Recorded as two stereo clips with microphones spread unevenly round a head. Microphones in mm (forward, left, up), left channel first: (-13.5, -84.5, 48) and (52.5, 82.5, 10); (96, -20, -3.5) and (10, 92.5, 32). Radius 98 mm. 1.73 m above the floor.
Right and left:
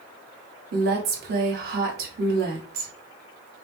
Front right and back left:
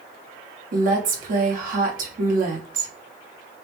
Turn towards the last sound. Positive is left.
turn(degrees=115)